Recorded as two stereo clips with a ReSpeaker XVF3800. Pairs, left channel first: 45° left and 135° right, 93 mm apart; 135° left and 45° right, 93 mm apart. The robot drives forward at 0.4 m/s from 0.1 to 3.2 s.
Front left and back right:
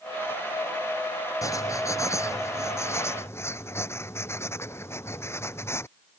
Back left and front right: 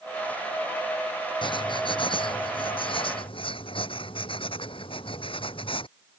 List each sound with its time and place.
1.4 s writing: 105° left; by 5.9 s 110° left